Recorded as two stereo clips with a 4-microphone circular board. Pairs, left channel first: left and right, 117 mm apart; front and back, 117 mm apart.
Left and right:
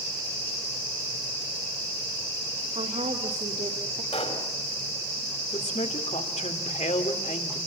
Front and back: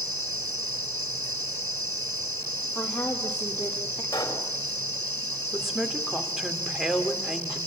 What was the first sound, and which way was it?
A woman speaking, 80° right.